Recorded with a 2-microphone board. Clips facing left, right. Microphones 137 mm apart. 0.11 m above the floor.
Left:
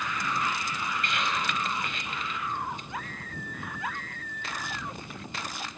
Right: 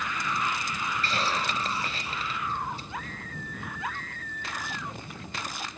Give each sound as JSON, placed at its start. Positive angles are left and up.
{"t": 1.0, "sound": "a hiss", "side_deg": -30}